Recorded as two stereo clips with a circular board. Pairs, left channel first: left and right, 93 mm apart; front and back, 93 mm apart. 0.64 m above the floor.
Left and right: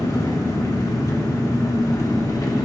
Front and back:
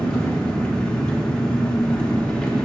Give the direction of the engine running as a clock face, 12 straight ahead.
10 o'clock.